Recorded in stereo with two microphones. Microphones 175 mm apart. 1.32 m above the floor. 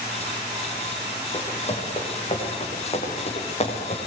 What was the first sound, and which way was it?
Running footsteps, 35° left (ahead or behind).